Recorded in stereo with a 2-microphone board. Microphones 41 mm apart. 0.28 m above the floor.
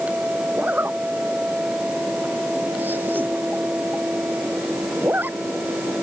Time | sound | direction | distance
0.6 | a zipper | 50° right (ahead or behind) | ?